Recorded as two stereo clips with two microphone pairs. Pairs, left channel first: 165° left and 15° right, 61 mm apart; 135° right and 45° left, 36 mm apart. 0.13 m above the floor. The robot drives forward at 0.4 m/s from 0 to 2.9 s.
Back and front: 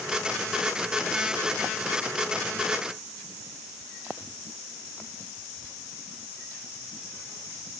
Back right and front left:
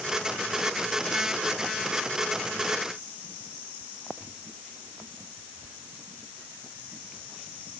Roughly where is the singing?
No singing in this recording.